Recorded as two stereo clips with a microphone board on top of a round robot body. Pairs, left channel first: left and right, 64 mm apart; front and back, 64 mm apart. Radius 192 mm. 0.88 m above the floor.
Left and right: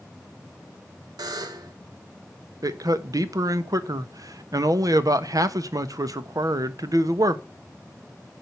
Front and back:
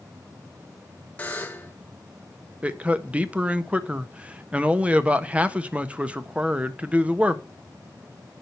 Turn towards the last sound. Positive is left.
turn(degrees=-110)